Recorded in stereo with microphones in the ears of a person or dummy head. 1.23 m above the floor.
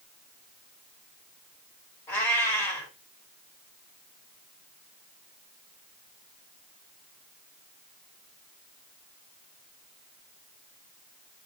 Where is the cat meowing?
15° left (ahead or behind), 1.5 m.